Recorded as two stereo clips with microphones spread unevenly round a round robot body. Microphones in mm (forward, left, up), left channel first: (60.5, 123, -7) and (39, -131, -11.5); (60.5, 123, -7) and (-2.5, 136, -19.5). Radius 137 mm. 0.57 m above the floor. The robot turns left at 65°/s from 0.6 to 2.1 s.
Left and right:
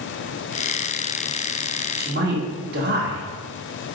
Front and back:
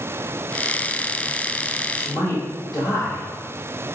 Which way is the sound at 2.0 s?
55° right.